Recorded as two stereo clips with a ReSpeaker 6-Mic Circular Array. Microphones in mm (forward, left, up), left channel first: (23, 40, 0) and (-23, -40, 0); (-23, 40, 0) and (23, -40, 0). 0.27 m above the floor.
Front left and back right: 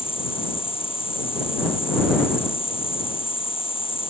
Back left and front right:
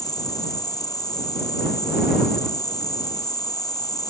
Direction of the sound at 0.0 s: 70° left.